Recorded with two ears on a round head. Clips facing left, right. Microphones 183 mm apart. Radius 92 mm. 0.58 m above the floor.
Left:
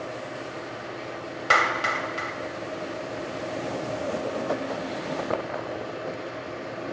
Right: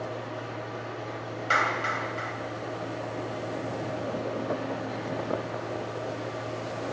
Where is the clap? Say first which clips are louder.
Left 4 dB; 65° left (ahead or behind), 2.5 m.